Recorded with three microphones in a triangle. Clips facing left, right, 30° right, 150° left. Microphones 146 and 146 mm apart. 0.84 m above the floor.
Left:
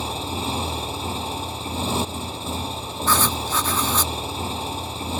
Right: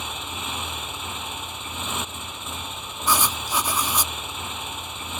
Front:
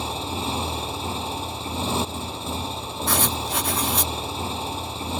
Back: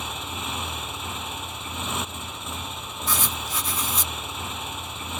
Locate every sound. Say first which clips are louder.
0.0 s a motorcycle: left 7 dB, front 6 dB; 30° left
3.1 s writing: left 2 dB, front 5 dB; 15° right